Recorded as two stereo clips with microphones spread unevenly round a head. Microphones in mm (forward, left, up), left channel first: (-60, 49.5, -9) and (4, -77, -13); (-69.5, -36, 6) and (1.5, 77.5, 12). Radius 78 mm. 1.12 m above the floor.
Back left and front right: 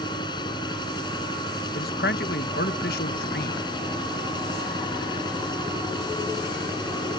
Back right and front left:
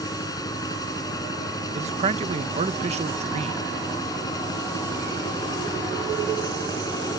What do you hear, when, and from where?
0.0 s a machine running: 175° left
1.8 s a man speaking: 90° left